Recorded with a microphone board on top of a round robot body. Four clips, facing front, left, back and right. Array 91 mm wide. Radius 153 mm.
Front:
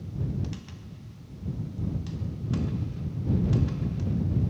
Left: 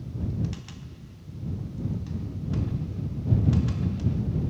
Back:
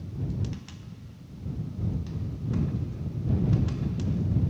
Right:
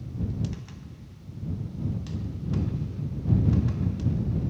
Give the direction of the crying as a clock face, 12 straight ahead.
I don't hear crying.